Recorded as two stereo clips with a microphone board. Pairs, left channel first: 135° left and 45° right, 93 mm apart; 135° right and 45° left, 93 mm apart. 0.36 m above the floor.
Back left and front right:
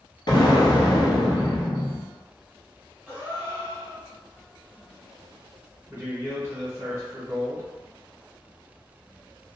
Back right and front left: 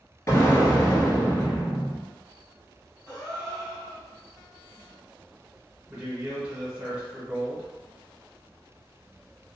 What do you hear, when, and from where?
0.3 s an explosion: 165° left, 0.9 m
3.1 s a gasp: 115° right, 1.8 m
5.9 s a man speaking: 20° right, 1.0 m